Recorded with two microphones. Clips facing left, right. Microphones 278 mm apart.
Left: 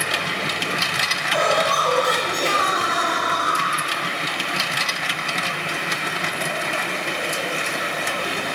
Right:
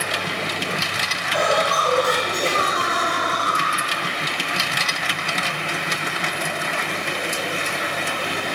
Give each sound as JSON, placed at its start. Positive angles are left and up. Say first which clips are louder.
{"t": 1.3, "sound": "laughter", "louder": "even", "side_deg": -10, "distance_m": 1.5}